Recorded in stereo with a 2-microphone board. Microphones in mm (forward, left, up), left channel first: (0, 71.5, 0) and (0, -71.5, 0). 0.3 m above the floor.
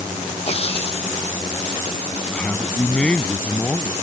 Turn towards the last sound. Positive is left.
turn(degrees=10)  # may be behind; listen again after turning